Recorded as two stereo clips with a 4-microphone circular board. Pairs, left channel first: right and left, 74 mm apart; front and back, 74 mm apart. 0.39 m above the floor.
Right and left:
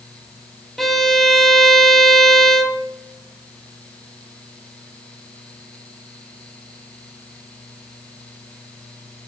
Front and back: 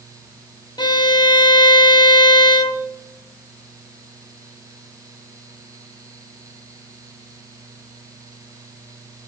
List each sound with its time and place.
0.8 s a violin: 5° right, 0.6 m